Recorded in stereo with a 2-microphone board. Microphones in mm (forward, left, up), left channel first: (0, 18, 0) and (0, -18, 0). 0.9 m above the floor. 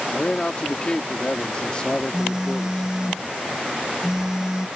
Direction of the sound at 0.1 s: 25° left (ahead or behind).